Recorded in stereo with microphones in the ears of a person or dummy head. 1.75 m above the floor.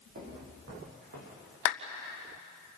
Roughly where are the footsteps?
Right.